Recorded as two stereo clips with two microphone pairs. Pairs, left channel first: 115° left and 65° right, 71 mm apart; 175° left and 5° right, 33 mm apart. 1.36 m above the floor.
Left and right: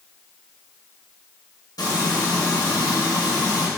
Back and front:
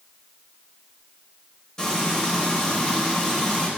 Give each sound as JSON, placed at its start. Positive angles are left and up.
{"t": 1.8, "sound": "frying", "azimuth_deg": 105, "distance_m": 2.5}